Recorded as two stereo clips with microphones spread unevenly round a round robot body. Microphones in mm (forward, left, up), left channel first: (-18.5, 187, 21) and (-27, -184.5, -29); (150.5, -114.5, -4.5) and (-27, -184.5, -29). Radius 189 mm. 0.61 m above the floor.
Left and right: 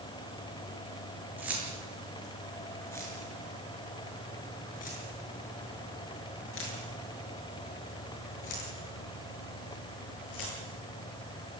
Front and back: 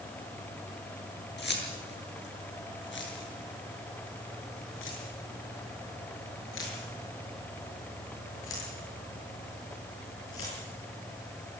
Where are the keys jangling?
5° right, 7 m; by 10.6 s 50° left, 9 m.